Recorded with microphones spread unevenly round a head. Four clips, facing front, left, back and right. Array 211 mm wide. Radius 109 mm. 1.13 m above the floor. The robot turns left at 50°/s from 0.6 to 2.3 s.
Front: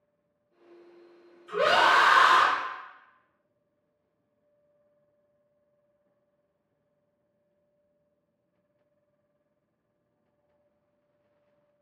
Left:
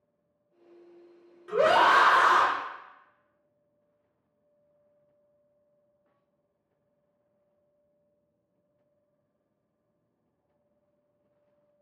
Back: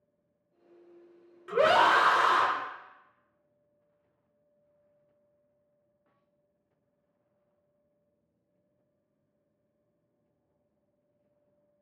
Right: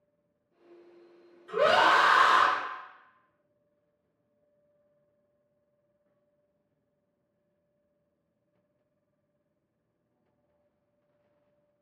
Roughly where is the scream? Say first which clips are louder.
Left 2 dB, even; behind left.